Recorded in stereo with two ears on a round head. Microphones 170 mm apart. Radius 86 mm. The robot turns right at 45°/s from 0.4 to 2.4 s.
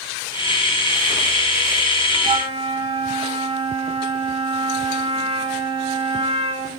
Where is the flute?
30° right (ahead or behind), 1.6 m.